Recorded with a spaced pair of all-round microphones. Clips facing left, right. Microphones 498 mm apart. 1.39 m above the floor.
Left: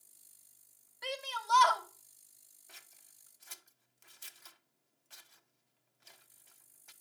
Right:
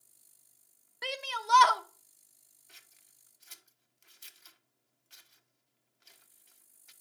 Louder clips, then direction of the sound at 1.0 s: Right 2 dB; 80° right.